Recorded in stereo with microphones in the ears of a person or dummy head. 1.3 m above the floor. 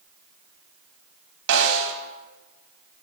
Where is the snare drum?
75° right (ahead or behind), 1.2 m.